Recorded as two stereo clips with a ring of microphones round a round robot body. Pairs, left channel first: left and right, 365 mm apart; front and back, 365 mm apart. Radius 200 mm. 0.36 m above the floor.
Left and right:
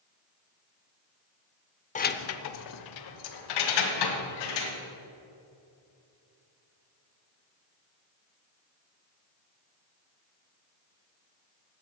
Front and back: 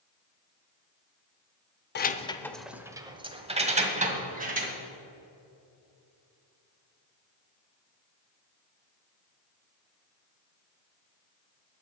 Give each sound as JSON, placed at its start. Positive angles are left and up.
{"t": 1.9, "sound": "keys jangling", "azimuth_deg": 35, "distance_m": 0.6}